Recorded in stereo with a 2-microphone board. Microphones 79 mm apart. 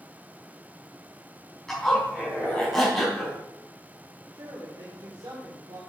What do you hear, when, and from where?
1.7 s a zipper: 5° left (ahead or behind), 4.5 m
4.3 s a man speaking: 65° right (ahead or behind), 2.5 m